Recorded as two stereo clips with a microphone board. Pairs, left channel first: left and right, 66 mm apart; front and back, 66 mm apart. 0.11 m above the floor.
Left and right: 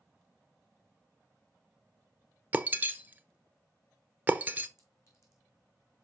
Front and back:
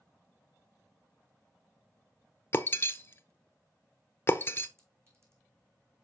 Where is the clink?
135° left, 4 m.